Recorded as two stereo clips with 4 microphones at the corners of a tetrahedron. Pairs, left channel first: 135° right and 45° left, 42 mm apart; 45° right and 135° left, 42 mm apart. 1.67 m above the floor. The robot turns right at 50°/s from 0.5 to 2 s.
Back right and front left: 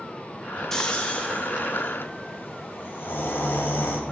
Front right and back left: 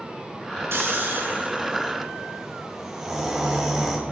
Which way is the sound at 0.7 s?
150° left.